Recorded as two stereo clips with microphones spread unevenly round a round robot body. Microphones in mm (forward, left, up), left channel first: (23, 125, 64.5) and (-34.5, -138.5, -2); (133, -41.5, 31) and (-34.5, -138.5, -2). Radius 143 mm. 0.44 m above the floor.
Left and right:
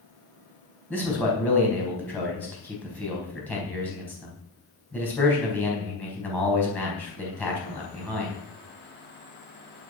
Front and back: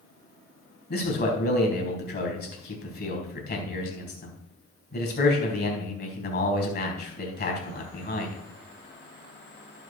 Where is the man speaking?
10° right, 4 m.